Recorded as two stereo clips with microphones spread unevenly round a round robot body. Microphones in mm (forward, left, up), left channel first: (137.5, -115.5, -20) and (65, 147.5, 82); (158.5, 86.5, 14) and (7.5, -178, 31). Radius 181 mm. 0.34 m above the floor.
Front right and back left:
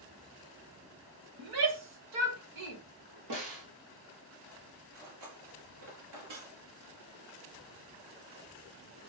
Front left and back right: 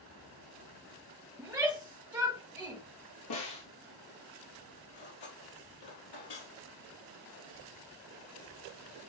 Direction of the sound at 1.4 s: 155° left.